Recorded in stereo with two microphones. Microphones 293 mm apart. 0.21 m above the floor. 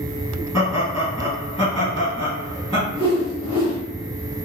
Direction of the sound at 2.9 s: 20° left (ahead or behind).